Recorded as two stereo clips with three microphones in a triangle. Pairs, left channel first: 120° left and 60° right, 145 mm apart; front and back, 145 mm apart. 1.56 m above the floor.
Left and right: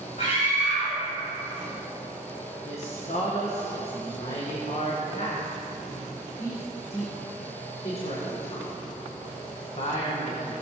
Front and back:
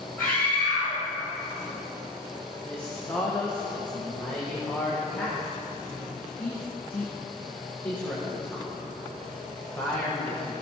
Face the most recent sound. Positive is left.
turn(degrees=75)